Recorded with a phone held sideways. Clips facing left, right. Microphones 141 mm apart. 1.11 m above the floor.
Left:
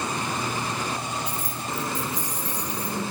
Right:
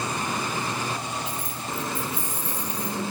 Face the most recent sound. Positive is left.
turn(degrees=70)  # may be behind; listen again after turning